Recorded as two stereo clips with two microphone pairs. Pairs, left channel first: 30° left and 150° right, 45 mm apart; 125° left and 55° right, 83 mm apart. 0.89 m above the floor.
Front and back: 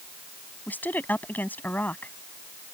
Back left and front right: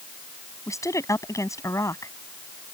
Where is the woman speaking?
80° left.